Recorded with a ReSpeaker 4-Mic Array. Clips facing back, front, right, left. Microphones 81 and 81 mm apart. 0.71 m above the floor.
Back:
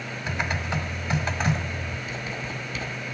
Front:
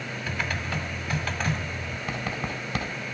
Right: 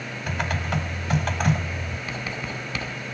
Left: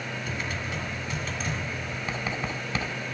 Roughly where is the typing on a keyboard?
Behind right.